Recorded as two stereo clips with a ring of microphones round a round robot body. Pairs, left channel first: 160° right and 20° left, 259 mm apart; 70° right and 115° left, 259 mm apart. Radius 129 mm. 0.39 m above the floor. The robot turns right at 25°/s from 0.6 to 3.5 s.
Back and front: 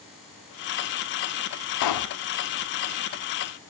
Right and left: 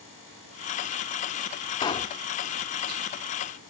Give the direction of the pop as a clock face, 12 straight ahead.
5 o'clock.